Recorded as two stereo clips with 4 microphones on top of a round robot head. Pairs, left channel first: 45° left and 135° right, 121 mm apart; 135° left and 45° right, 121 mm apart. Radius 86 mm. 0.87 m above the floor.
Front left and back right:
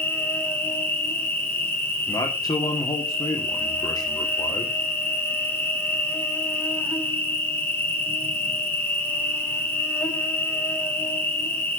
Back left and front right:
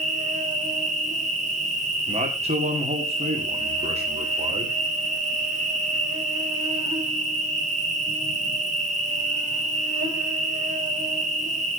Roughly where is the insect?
Ahead right.